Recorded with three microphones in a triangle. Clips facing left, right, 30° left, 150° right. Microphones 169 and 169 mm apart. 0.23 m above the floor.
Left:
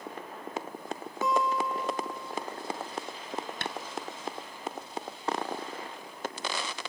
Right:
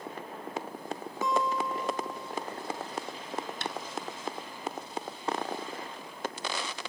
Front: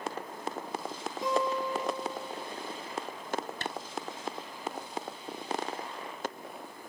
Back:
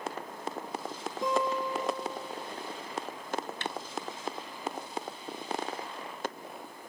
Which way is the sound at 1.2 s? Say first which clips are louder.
Left 1 dB, even; straight behind.